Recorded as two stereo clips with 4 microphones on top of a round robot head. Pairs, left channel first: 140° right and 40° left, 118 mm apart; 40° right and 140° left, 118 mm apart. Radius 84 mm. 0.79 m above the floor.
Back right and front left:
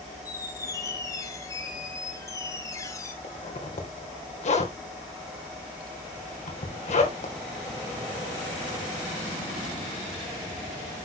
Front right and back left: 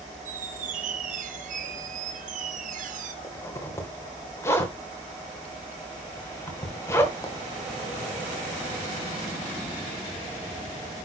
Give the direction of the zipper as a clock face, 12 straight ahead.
4 o'clock.